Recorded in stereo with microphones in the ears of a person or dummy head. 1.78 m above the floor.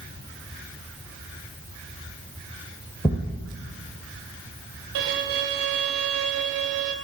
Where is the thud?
15° left (ahead or behind), 2.5 m.